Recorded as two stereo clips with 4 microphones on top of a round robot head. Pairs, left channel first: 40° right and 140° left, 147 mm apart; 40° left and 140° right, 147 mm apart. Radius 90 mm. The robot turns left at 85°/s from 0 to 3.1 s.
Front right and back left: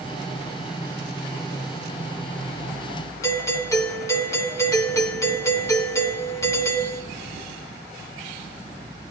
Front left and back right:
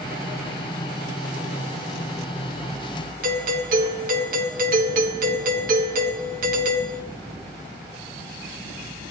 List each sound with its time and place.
3.2 s a doorbell: 110° right, 1.5 m